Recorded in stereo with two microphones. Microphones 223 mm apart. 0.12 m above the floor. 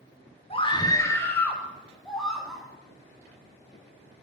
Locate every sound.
0.5 s a scream: 25° left (ahead or behind), 1.3 m; by 2.6 s centre (ahead or behind), 4 m